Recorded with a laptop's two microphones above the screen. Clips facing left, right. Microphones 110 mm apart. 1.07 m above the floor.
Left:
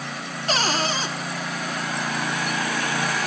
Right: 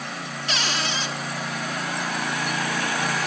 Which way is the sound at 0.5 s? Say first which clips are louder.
Left 5 dB; 40° left (ahead or behind).